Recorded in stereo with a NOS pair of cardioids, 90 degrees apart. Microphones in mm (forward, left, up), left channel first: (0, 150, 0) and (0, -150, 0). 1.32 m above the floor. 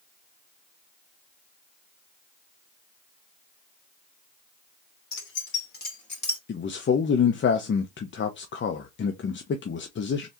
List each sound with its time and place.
5.1 s keys jangling: 45° left, 3 m; by 6.4 s 15° left, 2.5 m
6.5 s a man speaking: 40° left, 0.9 m